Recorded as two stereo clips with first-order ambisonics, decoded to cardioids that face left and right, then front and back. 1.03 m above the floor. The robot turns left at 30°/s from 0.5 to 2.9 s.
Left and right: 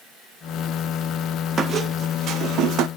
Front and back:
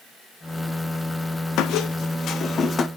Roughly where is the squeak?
Ahead right.